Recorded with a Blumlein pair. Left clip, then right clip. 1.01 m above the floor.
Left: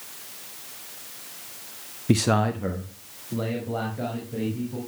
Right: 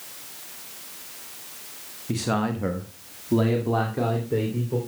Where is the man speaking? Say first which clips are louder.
Left 4 dB; 30° left, 0.8 m; by 4.8 s 45° right, 3.5 m.